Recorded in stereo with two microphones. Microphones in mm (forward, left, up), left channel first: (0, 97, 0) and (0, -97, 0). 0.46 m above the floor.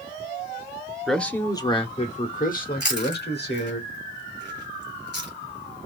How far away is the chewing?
About 2 m.